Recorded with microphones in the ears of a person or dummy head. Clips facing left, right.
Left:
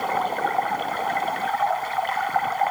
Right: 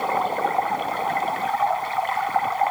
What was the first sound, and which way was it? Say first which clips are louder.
Running water: right 1 dB; 5° left (ahead or behind).